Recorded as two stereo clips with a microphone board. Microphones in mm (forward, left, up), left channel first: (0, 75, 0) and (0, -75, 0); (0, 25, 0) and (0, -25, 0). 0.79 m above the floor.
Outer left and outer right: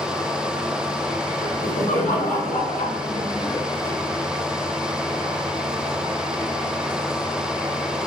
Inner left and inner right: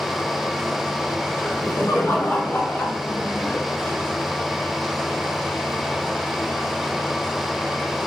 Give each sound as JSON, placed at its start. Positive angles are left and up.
{"t": 1.4, "sound": "laughter", "side_deg": 80, "distance_m": 3.0}